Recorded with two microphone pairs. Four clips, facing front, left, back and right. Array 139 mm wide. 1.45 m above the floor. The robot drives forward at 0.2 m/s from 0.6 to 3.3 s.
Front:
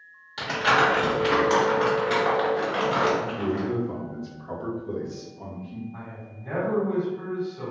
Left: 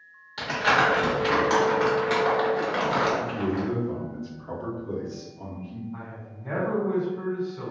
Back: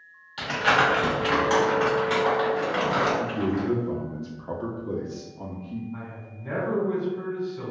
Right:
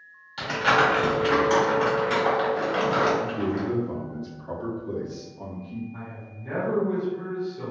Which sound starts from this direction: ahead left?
Crumpling, at 0.4 s.